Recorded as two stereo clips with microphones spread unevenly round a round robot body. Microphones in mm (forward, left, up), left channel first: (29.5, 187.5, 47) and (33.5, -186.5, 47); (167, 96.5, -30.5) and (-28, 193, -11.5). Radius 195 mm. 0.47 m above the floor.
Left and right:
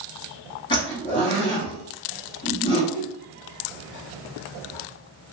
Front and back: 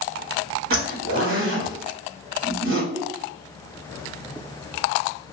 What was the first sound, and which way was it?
A zipper, 160° left.